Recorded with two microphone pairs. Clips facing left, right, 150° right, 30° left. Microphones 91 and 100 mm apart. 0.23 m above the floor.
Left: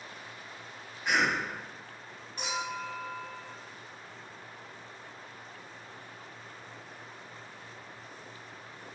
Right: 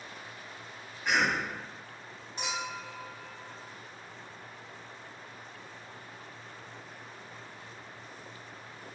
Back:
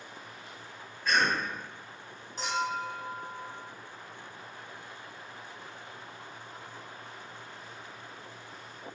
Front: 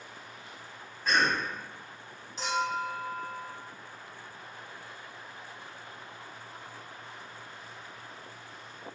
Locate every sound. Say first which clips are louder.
1.1 s a cough: even, even; 5° left, 1.8 m
2.4 s a clink: left 2 dB, front 1 dB; 140° right, 1.0 m